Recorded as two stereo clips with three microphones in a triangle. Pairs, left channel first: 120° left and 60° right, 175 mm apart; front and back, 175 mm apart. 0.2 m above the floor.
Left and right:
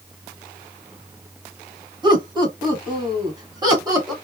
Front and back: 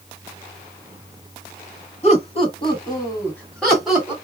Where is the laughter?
10° right, 1.5 m; by 4.1 s 105° right, 1.3 m.